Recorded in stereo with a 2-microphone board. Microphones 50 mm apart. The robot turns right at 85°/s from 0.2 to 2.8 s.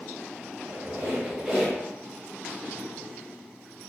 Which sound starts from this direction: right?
A squeak, at 0.6 s.